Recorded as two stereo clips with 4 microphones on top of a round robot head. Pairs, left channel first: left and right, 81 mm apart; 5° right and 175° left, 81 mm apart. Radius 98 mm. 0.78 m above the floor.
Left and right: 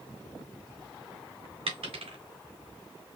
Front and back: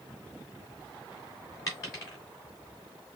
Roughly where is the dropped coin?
Ahead right.